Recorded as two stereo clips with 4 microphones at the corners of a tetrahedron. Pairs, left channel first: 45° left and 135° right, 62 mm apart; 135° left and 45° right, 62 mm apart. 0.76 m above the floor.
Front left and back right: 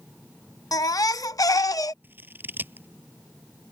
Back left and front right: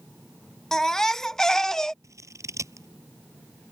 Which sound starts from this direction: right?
Scissors, at 2.0 s.